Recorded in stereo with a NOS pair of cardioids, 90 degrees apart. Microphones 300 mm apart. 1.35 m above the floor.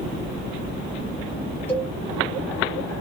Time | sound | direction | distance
1.7 | a cowbell | 5° left | 0.8 m